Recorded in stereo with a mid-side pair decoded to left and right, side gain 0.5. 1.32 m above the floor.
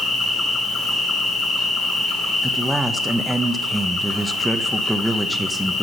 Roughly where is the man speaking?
Ahead.